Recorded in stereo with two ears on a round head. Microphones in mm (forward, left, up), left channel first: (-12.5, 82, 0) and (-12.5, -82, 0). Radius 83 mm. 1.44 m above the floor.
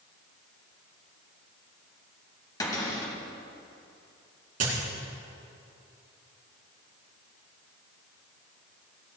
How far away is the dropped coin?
About 3.5 m.